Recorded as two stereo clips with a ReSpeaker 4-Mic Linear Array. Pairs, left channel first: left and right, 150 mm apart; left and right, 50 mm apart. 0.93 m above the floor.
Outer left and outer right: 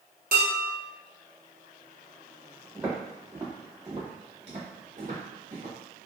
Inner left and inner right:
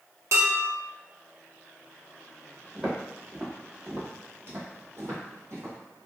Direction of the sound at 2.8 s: 5° right (ahead or behind).